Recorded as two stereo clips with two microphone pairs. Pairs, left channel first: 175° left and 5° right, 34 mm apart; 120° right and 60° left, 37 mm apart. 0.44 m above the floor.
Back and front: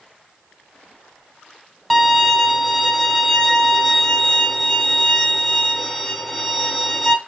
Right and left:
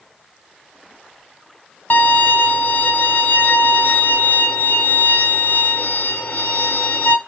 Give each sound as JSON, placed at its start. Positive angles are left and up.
{"t": 1.9, "sound": "a violin", "azimuth_deg": -95, "distance_m": 1.1}